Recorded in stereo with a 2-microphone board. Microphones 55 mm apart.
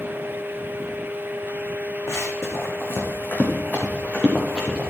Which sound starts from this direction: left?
Running footsteps, at 2.1 s.